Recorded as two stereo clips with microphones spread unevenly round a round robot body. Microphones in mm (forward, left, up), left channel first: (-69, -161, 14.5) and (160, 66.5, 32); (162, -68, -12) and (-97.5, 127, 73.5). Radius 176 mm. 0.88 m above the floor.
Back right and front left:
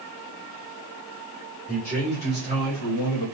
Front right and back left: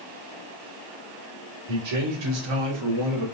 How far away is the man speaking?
About 2.0 m.